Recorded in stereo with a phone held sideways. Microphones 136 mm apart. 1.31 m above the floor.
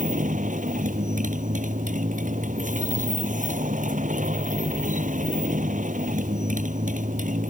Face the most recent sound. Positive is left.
turn(degrees=-70)  # may be behind; listen again after turning